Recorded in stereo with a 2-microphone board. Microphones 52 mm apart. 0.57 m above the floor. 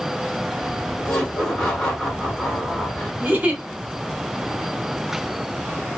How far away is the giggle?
About 0.9 m.